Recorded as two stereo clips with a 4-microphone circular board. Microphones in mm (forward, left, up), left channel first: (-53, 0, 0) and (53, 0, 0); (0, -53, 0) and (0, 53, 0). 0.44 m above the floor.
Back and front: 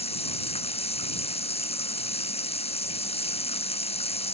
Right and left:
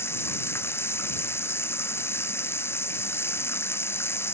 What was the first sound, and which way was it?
Running water, 160° right.